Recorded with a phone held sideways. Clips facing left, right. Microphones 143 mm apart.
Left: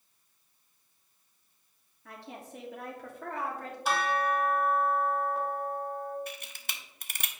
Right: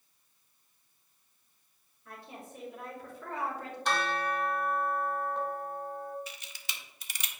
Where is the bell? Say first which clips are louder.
Left 3 dB; 5° left (ahead or behind), 1.0 m.